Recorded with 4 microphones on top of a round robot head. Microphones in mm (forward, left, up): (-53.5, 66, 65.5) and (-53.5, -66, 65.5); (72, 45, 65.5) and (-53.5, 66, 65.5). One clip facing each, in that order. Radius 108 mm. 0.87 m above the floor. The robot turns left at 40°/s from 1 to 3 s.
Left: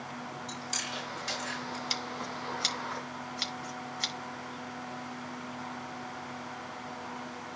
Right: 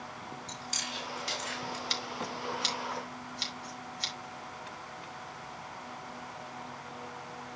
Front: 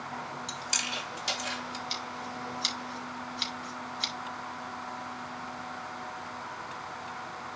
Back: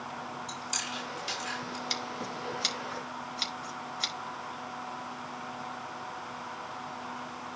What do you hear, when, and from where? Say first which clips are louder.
0.5 s chewing: left 2 dB, front 1 dB; straight ahead, 5.5 m; by 1.8 s 30° right, 5.5 m
1.9 s scissors: even, back 1 dB; 170° left, 4.5 m; by 4.1 s 125° left, 4.5 m